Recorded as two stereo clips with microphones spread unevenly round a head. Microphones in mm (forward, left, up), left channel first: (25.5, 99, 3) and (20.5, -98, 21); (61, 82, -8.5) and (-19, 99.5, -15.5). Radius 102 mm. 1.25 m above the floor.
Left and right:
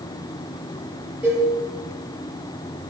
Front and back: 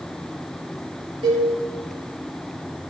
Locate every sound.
1.2 s a cowbell: 175° right, 6 m